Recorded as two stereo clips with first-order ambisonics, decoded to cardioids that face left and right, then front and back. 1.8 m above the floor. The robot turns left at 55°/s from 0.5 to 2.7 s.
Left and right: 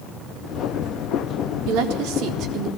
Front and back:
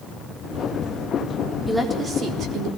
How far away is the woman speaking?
About 3.5 m.